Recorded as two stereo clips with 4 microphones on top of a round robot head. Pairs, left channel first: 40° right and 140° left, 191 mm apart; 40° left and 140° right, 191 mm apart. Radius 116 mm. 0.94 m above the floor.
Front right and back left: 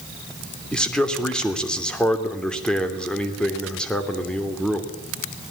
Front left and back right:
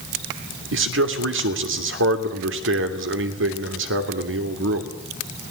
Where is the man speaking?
125° right, 3 m.